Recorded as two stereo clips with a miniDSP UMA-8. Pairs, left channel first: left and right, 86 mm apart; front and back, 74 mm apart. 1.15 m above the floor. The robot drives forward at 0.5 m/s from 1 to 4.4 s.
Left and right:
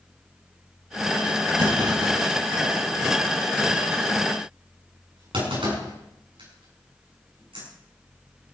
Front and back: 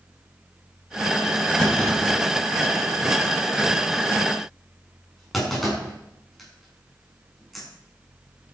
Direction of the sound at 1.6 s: 80° right.